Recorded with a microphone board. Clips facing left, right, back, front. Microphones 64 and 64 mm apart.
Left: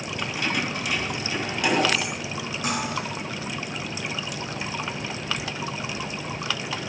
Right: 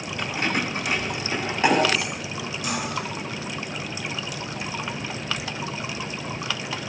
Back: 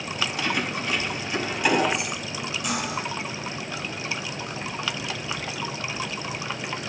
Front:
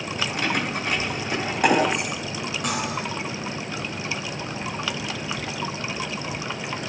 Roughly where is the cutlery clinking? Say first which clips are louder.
Left 1 dB, front 1 dB; ahead left.